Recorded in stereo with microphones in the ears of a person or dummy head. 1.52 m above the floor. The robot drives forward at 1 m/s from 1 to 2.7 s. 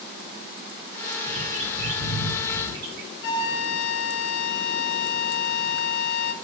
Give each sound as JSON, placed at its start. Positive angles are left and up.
{"t": 1.2, "sound": "a bird", "side_deg": -40, "distance_m": 3.5}
{"t": 3.2, "sound": "a flute", "side_deg": 65, "distance_m": 0.9}